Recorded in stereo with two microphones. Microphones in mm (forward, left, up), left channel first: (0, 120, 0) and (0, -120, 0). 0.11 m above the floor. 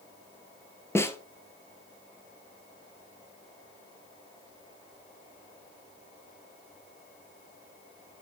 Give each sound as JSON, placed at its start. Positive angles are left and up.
{"t": 0.9, "sound": "a snare drum", "side_deg": 10, "distance_m": 1.1}